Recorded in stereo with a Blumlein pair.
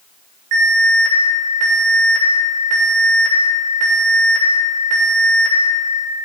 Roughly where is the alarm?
Ahead right.